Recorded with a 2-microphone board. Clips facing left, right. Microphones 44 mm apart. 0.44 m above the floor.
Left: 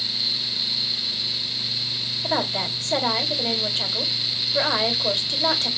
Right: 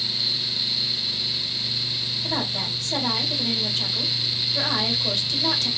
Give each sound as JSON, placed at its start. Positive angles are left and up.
{"t": 2.2, "sound": "a woman speaking", "side_deg": 45, "distance_m": 1.7}